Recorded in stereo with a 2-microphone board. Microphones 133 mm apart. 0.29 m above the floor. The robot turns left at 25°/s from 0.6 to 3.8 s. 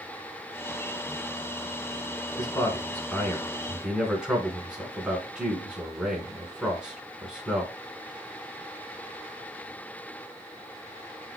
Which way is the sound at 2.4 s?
30° left (ahead or behind).